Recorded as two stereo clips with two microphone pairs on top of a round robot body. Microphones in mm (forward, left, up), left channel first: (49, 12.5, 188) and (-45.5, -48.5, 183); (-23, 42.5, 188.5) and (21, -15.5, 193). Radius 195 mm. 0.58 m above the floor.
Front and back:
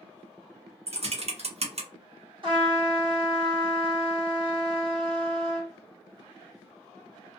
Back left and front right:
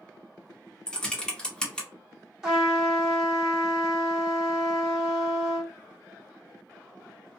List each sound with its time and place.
0.9 s typing on a keyboard: 155° right, 1.0 m
2.4 s a trumpet: 135° right, 1.8 m